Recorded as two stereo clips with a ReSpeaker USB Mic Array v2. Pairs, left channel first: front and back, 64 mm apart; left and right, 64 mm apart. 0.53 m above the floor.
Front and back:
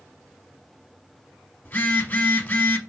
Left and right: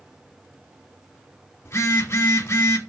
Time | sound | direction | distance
1.6 | a phone buzzing | 55° left | 0.6 m